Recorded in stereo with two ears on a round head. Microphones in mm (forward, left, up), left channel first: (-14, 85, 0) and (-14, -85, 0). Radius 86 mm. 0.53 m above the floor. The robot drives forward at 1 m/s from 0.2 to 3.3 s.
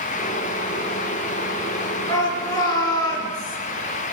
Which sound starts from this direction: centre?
A shout, at 2.1 s.